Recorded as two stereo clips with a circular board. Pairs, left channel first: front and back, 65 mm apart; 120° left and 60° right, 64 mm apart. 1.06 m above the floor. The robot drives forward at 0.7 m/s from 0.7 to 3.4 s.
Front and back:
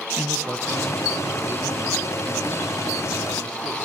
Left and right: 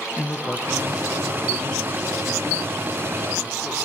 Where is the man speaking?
Straight behind, 0.9 m.